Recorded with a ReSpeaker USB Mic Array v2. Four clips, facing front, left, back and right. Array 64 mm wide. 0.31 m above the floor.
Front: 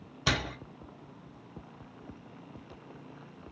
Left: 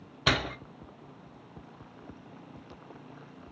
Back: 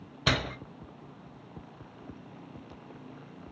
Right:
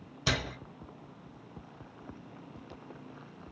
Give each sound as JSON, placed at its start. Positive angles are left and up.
{"t": 0.3, "sound": "a door slam", "azimuth_deg": 110, "distance_m": 0.6}